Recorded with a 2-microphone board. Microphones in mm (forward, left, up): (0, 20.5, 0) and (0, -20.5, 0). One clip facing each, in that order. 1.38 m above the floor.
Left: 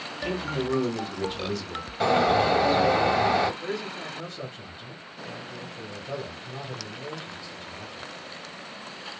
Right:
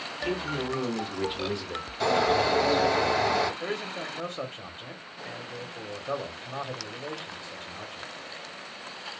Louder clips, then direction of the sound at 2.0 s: Left 2 dB; 20° left (ahead or behind).